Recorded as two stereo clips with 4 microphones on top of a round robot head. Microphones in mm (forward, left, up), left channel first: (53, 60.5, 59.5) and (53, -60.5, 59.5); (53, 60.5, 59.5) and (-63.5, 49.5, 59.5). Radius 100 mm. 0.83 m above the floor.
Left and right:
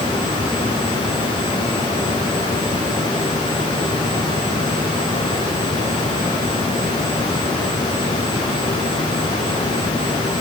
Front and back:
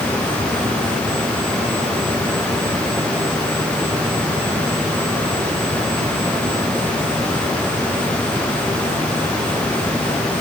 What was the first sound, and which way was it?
Only background noise.